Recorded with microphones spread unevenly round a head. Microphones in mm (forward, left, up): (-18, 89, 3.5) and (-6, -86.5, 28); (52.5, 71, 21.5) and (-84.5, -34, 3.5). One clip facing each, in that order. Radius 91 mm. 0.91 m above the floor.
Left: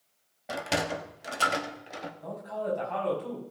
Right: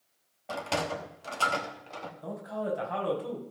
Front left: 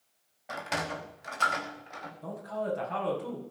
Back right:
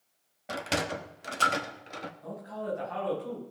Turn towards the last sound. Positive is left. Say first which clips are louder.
# even, front left 4 dB
turn(degrees=-5)